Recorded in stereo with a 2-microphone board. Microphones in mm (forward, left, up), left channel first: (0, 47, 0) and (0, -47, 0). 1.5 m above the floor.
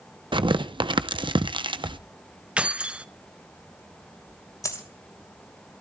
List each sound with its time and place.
0.3 s tearing paper: 55° right (ahead or behind), 0.9 m
2.6 s keys jangling: 10° right (ahead or behind), 0.7 m
4.6 s a dropped coin: 35° left (ahead or behind), 3 m